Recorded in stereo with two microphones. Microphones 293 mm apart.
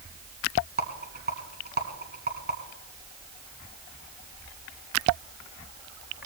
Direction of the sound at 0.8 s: 35° right (ahead or behind).